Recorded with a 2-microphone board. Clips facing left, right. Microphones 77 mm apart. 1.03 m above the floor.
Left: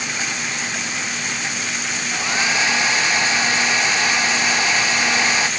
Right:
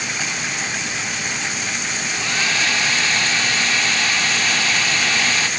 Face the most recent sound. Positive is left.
turn(degrees=20)  # may be behind; listen again after turning